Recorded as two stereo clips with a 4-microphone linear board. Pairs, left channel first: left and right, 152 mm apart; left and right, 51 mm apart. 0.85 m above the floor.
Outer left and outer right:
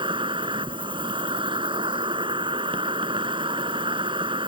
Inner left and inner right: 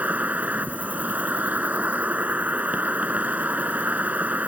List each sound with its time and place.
0.0 s an insect: 35° right (ahead or behind)